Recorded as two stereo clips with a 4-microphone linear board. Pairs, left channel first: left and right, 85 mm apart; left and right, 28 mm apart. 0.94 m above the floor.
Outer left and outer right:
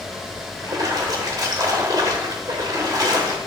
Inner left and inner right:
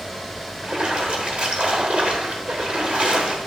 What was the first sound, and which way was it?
A splash, 45° right (ahead or behind).